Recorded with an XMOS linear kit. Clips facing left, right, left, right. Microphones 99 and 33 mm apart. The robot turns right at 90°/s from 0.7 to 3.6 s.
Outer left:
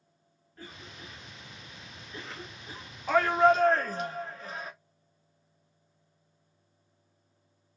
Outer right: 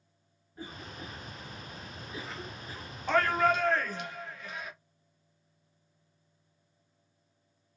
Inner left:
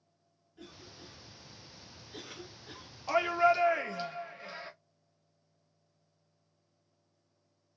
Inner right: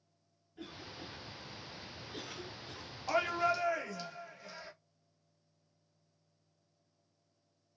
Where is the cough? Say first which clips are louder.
Outer right 4 dB, inner right 4 dB; 15° right (ahead or behind), 0.7 m; by 2.9 s 25° left (ahead or behind), 0.7 m.